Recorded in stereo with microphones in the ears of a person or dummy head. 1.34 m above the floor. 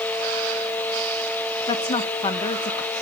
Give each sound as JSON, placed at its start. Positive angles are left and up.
{"t": 1.7, "sound": "a woman speaking", "side_deg": 25, "distance_m": 0.7}